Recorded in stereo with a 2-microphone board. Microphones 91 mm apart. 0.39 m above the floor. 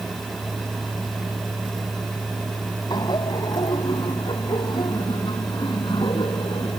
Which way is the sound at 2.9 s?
55° left (ahead or behind).